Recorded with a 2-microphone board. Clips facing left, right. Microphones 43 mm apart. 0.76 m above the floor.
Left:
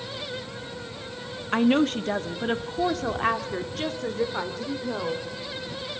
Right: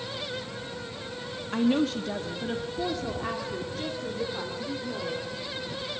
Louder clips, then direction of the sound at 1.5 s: Left 4 dB; 50° left (ahead or behind).